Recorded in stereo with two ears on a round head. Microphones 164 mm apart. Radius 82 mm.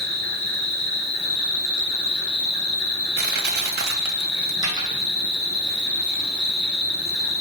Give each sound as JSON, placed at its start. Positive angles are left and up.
{"t": 0.0, "sound": "an insect", "side_deg": 30, "distance_m": 2.5}
{"t": 3.2, "sound": "crushing", "side_deg": -60, "distance_m": 0.8}
{"t": 4.6, "sound": "a dropped coin", "side_deg": -25, "distance_m": 2.5}